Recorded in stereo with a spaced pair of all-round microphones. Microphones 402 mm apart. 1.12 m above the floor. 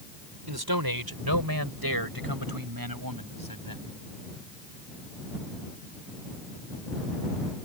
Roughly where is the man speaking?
Right.